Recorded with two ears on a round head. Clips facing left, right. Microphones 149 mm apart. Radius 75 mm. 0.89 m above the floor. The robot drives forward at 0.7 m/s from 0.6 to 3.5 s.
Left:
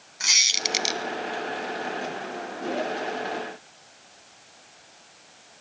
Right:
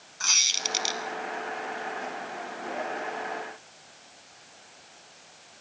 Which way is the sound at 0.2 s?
20° left (ahead or behind).